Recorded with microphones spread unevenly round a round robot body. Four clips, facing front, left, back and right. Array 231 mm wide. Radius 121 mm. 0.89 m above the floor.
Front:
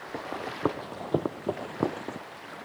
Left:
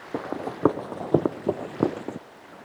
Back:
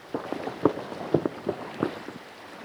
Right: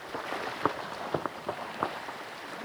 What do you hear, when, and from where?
0.1 s running footsteps: 130° left; by 2.2 s 95° left